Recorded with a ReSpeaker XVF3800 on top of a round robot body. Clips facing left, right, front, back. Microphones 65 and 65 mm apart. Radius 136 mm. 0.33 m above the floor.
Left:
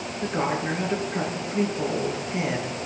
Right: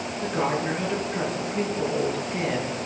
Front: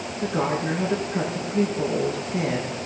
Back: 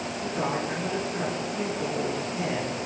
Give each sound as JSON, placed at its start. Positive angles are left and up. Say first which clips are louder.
{"t": 0.2, "sound": "a woman speaking", "louder": "even, front 5 dB", "azimuth_deg": 15, "distance_m": 8.0}